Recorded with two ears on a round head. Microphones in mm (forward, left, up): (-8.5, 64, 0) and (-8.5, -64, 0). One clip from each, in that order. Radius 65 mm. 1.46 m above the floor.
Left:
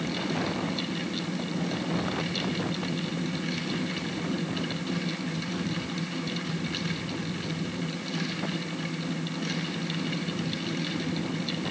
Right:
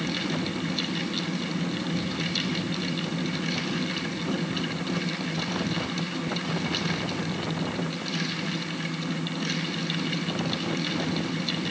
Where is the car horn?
I don't hear a car horn.